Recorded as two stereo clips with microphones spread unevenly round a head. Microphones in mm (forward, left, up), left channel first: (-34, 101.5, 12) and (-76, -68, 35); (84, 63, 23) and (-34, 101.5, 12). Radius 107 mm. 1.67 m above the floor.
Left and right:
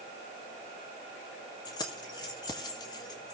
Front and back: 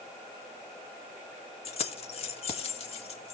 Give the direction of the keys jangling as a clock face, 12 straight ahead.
12 o'clock.